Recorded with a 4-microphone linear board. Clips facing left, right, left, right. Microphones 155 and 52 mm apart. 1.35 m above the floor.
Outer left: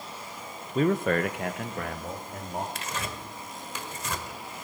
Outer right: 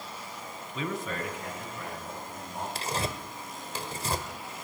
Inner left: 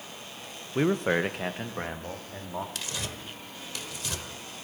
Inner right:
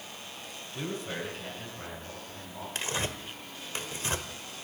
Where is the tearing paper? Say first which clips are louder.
Outer right 3 dB, inner right 3 dB; 35° right (ahead or behind), 1.2 m.